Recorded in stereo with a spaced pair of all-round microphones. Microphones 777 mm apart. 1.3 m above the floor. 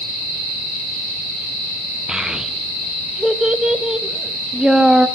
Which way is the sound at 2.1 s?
Centre (ahead or behind).